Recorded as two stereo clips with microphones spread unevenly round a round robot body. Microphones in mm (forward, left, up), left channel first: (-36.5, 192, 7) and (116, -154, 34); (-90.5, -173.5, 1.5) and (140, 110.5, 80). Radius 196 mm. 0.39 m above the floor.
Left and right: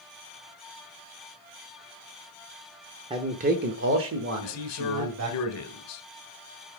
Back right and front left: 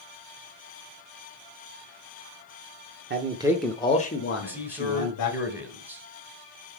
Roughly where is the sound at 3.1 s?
Ahead.